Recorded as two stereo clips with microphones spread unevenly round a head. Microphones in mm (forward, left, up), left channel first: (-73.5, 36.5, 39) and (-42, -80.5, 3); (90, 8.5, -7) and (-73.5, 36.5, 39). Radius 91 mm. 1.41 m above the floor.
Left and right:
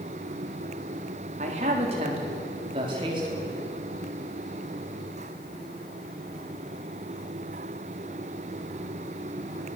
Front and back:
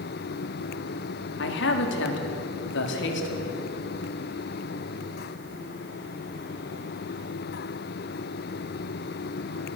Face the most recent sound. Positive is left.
turn(degrees=-10)